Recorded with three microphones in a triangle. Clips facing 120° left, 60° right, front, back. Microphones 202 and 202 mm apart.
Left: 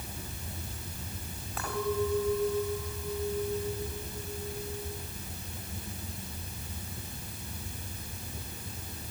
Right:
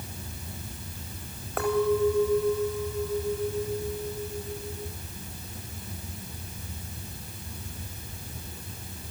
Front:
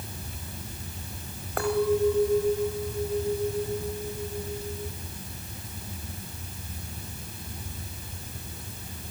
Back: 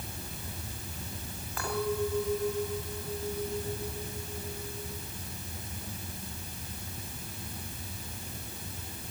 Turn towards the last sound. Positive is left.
turn(degrees=-35)